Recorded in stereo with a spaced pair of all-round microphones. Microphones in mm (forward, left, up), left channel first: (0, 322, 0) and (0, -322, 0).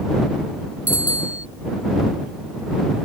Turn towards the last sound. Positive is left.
turn(degrees=0)  # may be behind; listen again after turning